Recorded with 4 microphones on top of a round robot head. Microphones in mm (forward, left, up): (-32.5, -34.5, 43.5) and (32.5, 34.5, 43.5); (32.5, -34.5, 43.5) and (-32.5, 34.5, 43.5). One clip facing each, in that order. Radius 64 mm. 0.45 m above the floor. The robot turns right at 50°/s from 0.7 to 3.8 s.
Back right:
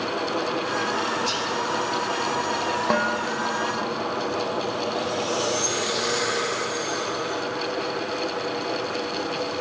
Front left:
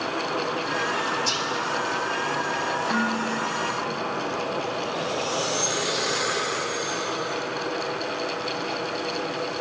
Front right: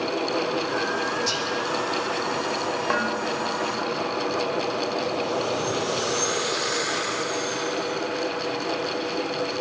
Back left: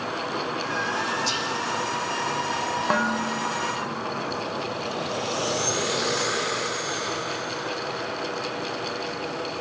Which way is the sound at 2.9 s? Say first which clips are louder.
Back right 2 dB, back left 1 dB; 150° right.